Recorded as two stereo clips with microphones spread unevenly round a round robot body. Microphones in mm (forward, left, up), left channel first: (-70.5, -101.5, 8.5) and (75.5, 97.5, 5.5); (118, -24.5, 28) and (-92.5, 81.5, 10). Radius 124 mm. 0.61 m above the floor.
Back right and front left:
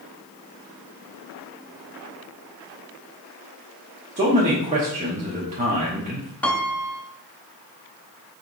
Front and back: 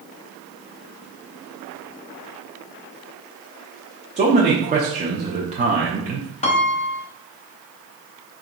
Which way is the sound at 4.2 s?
105° left.